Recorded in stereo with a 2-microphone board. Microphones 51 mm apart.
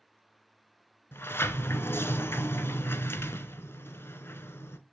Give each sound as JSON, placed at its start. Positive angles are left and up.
{"t": 1.1, "sound": "a sliding door", "side_deg": 50, "distance_m": 0.7}